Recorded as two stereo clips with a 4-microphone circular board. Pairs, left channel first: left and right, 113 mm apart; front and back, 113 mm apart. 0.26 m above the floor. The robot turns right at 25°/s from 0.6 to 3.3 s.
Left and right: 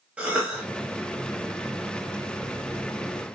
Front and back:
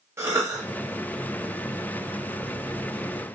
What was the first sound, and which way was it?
A cough, 155° right.